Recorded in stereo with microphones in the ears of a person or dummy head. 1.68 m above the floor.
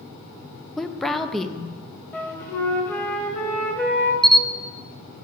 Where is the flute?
10° left (ahead or behind), 0.9 m.